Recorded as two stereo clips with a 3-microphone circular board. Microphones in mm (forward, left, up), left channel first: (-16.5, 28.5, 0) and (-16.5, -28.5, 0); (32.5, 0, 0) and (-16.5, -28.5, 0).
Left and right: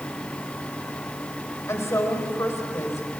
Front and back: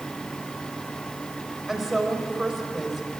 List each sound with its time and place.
1.7 s a woman speaking: 120° left, 4.5 m